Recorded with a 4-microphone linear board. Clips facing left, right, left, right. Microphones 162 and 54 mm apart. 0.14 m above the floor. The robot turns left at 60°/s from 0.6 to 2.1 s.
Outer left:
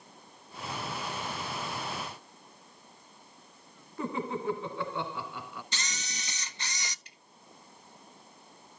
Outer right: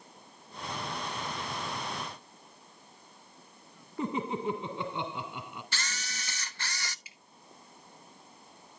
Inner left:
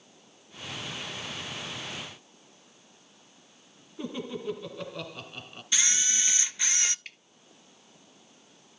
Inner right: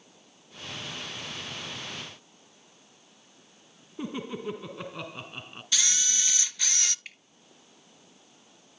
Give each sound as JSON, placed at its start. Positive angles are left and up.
{"t": 4.0, "sound": "laughter", "side_deg": -20, "distance_m": 1.6}
{"t": 5.7, "sound": "a camera shutter", "side_deg": 20, "distance_m": 0.6}
{"t": 7.0, "sound": "dripping", "side_deg": -5, "distance_m": 1.4}